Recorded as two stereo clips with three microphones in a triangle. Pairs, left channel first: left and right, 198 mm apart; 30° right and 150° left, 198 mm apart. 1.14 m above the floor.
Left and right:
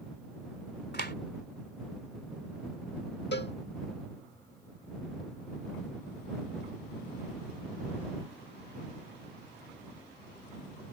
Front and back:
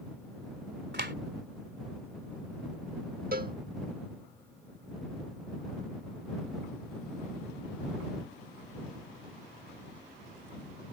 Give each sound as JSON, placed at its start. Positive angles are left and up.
{"t": 0.9, "sound": "a clap", "azimuth_deg": 120}
{"t": 3.3, "sound": "a cowbell", "azimuth_deg": 115}